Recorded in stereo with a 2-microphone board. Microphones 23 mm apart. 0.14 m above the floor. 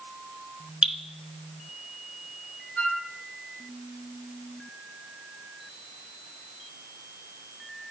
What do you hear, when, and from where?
0.8 s dripping: 35° right (ahead or behind), 1.4 m
2.8 s a flute: 50° left (ahead or behind), 3.5 m